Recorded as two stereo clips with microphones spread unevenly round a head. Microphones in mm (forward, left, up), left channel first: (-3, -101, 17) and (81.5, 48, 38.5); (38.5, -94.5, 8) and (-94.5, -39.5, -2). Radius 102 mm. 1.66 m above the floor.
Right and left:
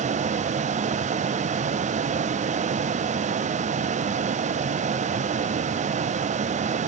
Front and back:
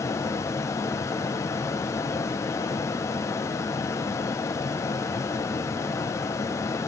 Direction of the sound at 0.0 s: 45° left.